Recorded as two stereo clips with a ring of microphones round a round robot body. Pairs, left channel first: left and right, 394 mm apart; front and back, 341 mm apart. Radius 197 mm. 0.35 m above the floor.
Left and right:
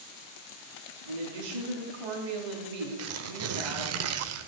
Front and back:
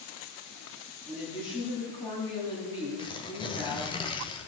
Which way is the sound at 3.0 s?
70° right.